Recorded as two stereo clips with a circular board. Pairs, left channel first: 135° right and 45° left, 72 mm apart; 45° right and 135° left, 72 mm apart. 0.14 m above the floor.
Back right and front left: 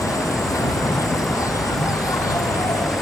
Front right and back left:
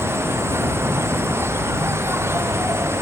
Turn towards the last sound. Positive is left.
turn(degrees=-170)